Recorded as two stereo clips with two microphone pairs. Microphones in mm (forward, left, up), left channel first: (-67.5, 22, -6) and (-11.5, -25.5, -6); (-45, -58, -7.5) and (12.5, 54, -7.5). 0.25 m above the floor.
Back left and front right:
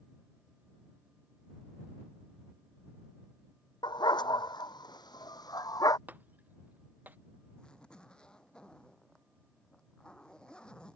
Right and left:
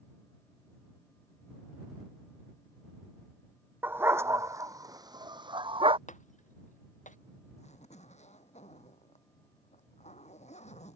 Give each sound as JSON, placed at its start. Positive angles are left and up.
{"t": 3.8, "sound": "a dog barking", "azimuth_deg": 135}
{"t": 6.1, "sound": "breaking glass", "azimuth_deg": -105}
{"t": 7.6, "sound": "a zipper", "azimuth_deg": -140}